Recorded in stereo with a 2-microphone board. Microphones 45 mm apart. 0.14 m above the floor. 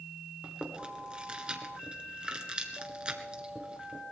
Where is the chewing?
20° right (ahead or behind), 1.7 m.